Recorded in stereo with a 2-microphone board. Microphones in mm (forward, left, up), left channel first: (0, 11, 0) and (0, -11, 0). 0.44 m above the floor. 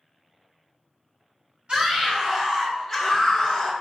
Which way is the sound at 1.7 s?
45° right (ahead or behind).